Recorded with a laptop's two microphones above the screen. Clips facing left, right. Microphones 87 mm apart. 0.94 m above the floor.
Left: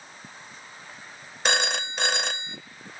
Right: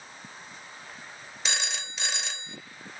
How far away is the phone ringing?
About 0.8 m.